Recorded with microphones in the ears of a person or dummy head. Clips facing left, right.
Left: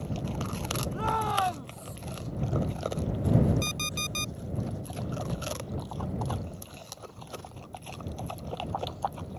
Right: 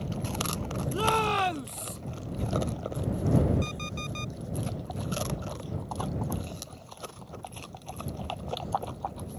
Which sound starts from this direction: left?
An alarm clock, at 3.6 s.